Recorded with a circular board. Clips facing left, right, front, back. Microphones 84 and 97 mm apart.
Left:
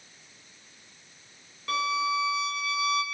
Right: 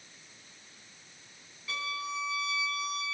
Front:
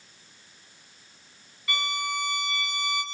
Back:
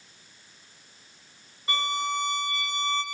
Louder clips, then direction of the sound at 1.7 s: Left 10 dB, back 3 dB; 120° left.